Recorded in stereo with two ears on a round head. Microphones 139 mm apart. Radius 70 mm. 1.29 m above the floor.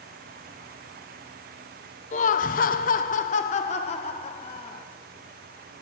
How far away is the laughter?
About 0.6 m.